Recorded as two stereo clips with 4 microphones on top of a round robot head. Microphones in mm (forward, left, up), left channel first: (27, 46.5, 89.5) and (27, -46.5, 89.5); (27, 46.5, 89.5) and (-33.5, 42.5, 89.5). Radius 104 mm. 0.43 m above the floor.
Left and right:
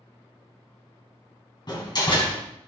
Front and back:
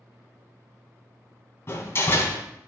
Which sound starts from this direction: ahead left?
A door slam, at 1.7 s.